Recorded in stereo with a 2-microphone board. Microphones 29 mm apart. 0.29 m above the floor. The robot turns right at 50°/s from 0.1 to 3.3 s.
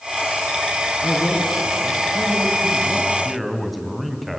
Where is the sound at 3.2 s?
Centre (ahead or behind), 2.5 m.